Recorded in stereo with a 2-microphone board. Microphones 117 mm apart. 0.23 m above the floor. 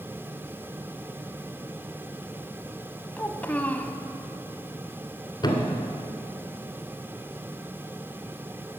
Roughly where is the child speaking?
Centre.